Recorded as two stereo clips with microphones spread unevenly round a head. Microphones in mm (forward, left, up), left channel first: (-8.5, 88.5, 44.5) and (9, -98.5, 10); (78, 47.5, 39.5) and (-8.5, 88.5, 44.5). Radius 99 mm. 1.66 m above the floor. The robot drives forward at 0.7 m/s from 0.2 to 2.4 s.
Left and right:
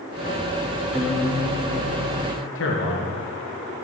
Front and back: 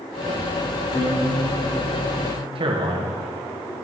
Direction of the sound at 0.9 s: 15° left.